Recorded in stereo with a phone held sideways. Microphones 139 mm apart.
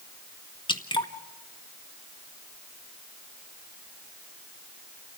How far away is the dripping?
About 1.3 m.